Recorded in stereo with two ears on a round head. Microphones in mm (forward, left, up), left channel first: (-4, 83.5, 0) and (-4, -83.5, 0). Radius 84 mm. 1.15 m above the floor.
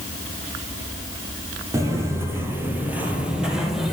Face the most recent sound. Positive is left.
turn(degrees=0)  # may be behind; listen again after turning